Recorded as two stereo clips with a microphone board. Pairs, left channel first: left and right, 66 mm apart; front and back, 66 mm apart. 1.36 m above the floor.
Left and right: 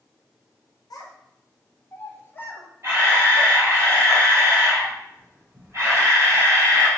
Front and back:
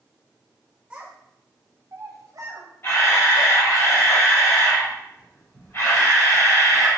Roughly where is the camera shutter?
Ahead right.